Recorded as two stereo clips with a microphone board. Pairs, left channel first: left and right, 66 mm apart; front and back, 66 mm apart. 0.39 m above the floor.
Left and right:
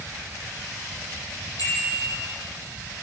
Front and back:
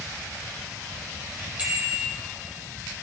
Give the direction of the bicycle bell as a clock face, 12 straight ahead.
8 o'clock.